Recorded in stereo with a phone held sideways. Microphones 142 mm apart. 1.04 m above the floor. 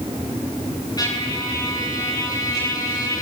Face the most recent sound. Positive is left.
turn(degrees=30)  # may be behind; listen again after turning